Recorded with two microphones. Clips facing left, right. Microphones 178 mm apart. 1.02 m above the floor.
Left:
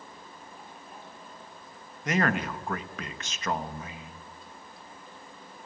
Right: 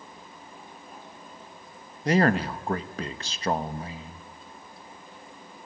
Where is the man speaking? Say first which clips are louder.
Right 5 dB; 35° right (ahead or behind), 1.2 m.